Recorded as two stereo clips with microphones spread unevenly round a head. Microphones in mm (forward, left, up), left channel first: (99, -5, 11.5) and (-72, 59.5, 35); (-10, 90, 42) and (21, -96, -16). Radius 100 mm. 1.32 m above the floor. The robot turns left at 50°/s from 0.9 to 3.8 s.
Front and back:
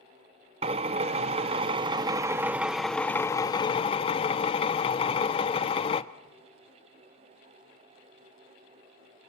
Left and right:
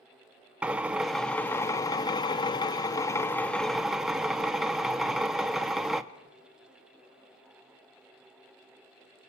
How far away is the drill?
About 0.8 m.